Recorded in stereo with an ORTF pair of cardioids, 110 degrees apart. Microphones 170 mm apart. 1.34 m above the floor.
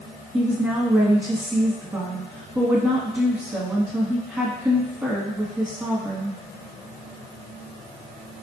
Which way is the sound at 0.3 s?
15° right.